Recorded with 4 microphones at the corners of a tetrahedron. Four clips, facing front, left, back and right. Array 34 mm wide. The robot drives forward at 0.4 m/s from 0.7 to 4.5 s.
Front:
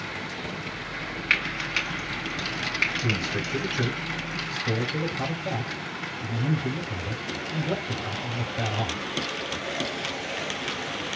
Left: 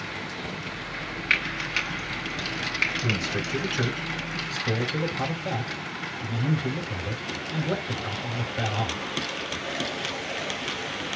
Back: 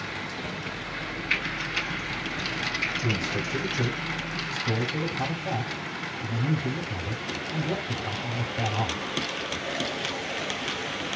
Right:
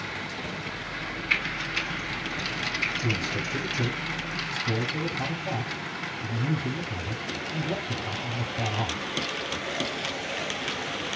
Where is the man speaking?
65° left, 5.5 m; by 9.0 s 70° left, 5.5 m.